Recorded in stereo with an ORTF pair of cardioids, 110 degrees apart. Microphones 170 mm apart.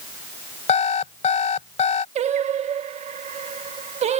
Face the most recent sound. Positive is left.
turn(degrees=-40)